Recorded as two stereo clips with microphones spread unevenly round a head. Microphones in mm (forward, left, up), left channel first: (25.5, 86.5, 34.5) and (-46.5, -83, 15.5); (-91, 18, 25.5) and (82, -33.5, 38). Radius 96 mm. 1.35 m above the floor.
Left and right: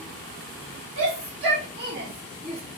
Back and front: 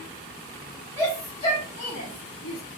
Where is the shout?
120° right, 1.9 m; by 2.6 s 175° left, 1.1 m.